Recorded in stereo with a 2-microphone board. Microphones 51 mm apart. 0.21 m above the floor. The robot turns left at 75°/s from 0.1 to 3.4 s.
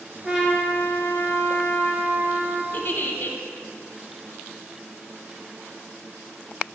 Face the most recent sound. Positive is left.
turn(degrees=65)